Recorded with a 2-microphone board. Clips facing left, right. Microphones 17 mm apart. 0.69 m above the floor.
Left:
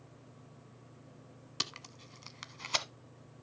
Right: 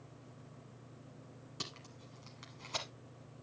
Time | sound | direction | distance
1.6 | tape being pulled | 45° left (ahead or behind) | 1.0 m